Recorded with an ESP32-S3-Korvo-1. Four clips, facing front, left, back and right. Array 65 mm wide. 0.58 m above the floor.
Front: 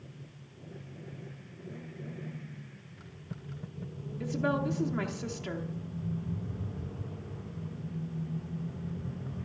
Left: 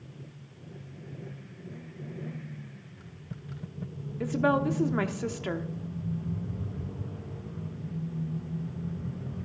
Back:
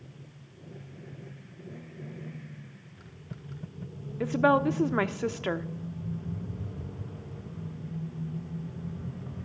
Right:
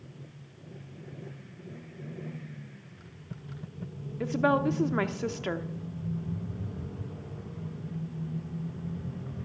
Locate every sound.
4.2 s a woman speaking: 170° right, 0.9 m